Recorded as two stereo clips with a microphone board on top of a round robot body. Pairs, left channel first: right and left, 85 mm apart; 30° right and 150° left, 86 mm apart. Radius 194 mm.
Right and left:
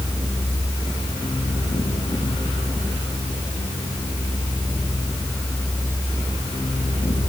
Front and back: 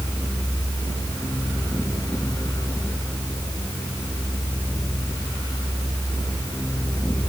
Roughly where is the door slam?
I don't hear a door slam.